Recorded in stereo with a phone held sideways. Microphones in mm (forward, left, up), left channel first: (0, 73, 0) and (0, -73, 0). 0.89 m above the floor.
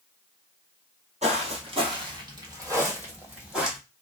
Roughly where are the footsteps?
Right.